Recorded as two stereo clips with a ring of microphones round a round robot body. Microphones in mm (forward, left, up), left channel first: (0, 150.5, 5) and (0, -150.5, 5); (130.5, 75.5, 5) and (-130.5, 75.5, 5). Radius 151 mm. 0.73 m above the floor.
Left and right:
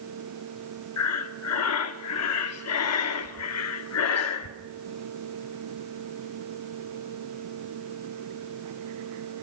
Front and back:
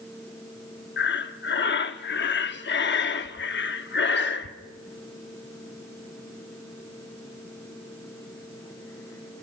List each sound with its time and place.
1.0 s breathing: 50° left, 0.9 m